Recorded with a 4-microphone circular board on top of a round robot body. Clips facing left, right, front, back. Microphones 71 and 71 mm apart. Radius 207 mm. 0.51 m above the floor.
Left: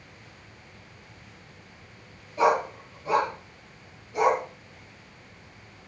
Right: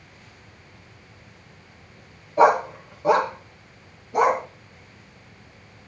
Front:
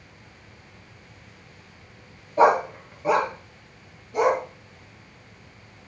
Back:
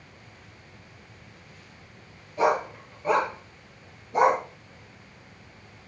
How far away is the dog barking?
About 1.7 m.